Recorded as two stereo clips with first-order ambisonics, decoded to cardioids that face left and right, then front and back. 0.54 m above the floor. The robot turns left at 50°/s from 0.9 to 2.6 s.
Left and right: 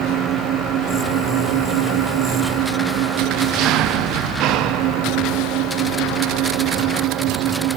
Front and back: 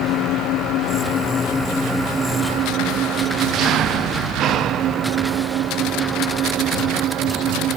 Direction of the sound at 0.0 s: 45° right.